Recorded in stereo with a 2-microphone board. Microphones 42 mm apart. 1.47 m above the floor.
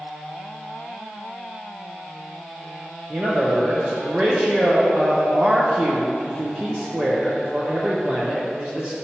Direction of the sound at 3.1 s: 35° right (ahead or behind).